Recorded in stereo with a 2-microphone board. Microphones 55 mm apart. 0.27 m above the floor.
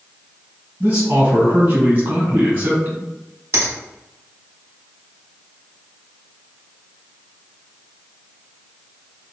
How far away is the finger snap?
About 1.3 m.